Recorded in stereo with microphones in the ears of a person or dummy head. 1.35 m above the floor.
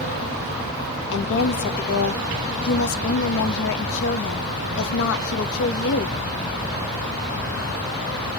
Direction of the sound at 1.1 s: 70° left (ahead or behind).